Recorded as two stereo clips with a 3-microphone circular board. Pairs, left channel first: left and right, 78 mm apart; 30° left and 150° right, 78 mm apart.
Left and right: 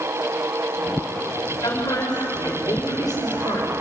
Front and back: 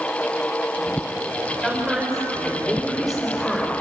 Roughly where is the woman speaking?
Behind left.